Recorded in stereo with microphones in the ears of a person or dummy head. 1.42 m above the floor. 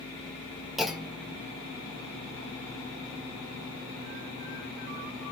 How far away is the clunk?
About 0.8 m.